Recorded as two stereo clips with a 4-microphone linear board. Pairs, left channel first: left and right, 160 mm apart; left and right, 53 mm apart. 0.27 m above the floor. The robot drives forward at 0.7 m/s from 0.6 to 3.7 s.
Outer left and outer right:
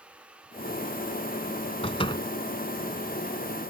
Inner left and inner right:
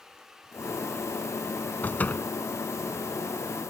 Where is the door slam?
35° left (ahead or behind); by 2.3 s 30° left (ahead or behind).